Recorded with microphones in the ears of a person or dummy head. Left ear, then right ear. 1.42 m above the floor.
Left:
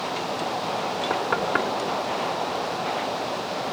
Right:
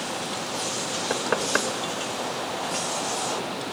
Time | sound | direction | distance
1.1 | knocking | 10° right (ahead or behind) | 1.4 m